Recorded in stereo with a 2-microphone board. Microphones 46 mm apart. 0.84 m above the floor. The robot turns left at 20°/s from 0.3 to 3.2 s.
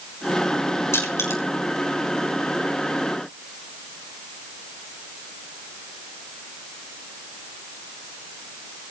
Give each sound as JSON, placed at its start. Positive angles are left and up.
{"t": 0.9, "sound": "crushing", "side_deg": 80, "distance_m": 4.0}